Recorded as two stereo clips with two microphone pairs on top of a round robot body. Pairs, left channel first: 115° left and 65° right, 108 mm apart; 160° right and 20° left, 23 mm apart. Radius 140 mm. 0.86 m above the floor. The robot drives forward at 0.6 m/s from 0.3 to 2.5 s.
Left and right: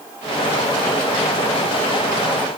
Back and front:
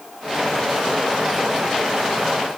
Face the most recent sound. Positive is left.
No sound to turn to.